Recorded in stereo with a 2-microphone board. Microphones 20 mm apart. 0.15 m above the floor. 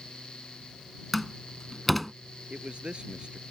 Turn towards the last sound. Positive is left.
turn(degrees=-60)  # may be behind; listen again after turning